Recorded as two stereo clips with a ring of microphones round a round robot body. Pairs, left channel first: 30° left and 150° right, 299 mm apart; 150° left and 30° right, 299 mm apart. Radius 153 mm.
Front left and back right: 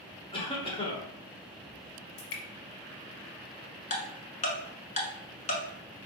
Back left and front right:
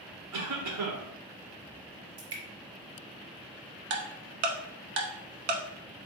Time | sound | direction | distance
0.3 | a cough | 40° right | 1.2 m
2.2 | dripping | 15° left | 1.2 m
3.9 | ticking | 35° right | 0.9 m